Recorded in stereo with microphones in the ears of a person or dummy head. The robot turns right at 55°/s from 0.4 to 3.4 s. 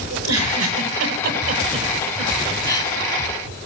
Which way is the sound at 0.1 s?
75° right (ahead or behind).